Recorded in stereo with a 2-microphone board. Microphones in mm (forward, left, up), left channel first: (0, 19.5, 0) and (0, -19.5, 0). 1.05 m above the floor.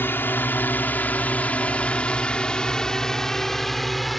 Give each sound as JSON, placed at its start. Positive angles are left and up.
{"t": 0.0, "sound": "a drone", "side_deg": 65}